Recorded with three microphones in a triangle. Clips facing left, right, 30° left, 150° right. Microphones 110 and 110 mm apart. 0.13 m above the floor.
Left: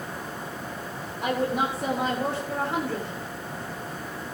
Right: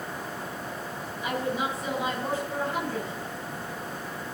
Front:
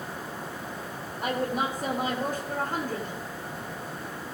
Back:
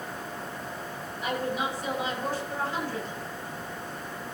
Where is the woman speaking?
70° left, 6.5 m.